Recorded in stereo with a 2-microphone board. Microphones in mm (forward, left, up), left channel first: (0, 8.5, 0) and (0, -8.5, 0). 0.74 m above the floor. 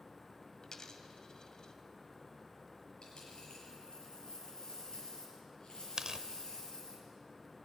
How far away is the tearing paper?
About 0.7 m.